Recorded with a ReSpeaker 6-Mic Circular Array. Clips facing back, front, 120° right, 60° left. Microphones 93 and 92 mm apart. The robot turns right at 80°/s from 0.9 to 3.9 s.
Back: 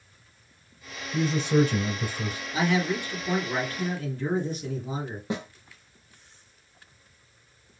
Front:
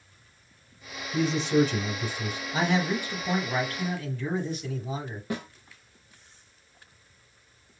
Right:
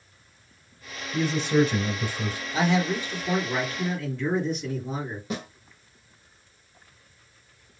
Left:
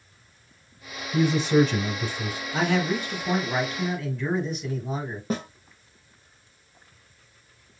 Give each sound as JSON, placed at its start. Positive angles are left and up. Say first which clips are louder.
{"t": 1.1, "sound": "a man speaking", "louder": "even, left 2 dB", "azimuth_deg": 105, "distance_m": 1.4}
{"t": 2.5, "sound": "a man speaking", "louder": "back 1 dB, even", "azimuth_deg": 35, "distance_m": 2.5}
{"t": 5.3, "sound": "a snare drum", "louder": "back 1 dB, left 5 dB", "azimuth_deg": 110, "distance_m": 1.2}